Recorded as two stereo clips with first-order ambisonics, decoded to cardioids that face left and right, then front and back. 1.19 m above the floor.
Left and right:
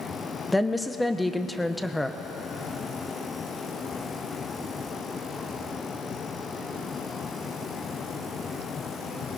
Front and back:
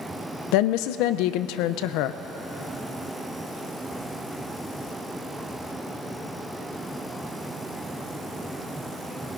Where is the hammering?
No hammering in this recording.